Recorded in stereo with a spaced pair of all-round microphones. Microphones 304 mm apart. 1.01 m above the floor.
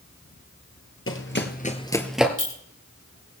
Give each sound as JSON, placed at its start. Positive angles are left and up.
{"t": 1.1, "sound": "running footsteps", "side_deg": 45, "distance_m": 1.4}
{"t": 2.4, "sound": "a clink", "side_deg": 85, "distance_m": 3.0}